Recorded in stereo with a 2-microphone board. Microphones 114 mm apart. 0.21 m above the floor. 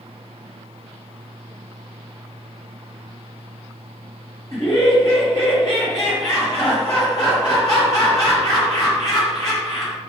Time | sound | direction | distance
4.5 | laughter | 35° left (ahead or behind) | 1.4 m